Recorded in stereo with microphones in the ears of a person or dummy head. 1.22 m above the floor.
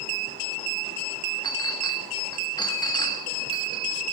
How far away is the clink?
About 1.2 m.